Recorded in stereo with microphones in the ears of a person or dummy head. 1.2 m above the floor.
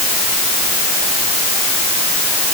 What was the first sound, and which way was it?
Only background noise.